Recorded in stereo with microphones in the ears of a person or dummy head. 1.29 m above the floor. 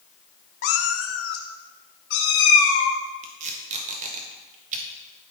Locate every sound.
0.6 s a cat meowing: 40° left (ahead or behind), 0.6 m; by 3.0 s 60° left (ahead or behind), 2 m
3.2 s tape being pulled: 45° right (ahead or behind), 1.5 m